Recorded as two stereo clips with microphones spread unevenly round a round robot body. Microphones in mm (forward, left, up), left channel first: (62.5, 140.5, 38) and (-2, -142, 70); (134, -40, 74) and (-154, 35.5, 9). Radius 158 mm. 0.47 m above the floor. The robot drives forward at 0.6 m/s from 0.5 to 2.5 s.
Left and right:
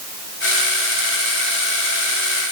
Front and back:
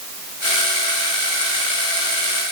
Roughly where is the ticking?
I don't hear ticking.